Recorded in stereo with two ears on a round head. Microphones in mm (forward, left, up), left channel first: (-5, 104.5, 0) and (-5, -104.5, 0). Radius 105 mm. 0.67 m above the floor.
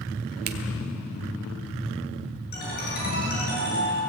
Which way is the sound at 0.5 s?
40° right (ahead or behind).